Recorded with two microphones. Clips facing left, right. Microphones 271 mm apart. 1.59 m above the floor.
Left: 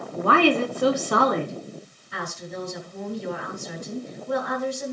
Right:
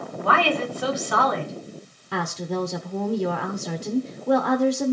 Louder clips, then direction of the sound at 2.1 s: Right 7 dB; 70° right (ahead or behind).